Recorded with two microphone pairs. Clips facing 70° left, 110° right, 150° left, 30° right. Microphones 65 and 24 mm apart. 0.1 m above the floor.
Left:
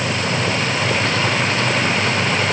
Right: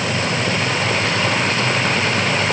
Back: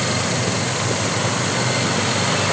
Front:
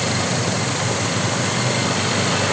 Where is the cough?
I don't hear a cough.